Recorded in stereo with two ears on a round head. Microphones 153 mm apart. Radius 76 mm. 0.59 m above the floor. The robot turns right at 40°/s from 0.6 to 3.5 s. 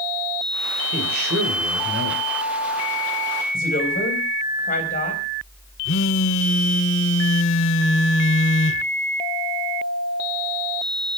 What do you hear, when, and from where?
0.9 s a man speaking: 125° right, 3.5 m; by 2.2 s 75° right, 3.5 m
3.5 s a woman speaking: 60° left (ahead or behind), 4 m
5.8 s a phone buzzing: 85° left, 1.1 m